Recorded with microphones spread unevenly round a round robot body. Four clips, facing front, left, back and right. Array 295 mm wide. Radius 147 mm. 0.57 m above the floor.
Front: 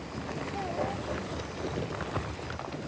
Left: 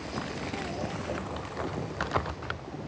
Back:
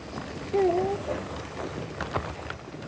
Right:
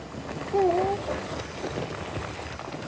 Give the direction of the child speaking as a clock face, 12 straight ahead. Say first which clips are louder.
Right 16 dB, back 12 dB; 5 o'clock.